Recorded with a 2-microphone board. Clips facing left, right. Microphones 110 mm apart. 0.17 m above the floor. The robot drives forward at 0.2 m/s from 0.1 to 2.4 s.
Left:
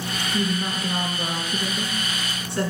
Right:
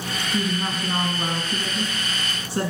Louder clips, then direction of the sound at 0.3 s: Even; 40° right (ahead or behind).